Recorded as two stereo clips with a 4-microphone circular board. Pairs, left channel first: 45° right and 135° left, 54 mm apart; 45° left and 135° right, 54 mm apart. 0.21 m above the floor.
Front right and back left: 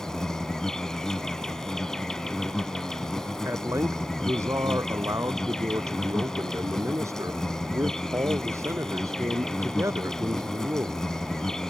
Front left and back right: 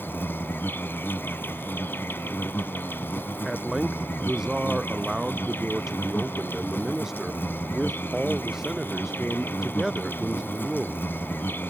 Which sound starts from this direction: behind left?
A man speaking, at 3.4 s.